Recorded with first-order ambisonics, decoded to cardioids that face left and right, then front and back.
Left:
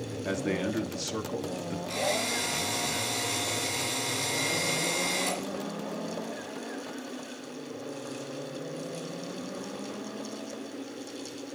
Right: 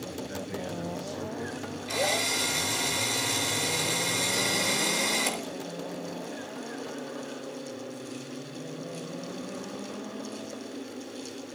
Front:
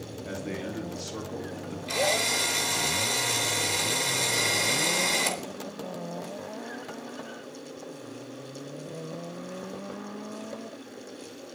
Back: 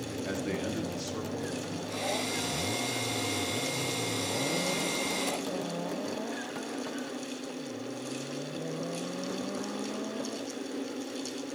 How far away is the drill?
About 3.5 m.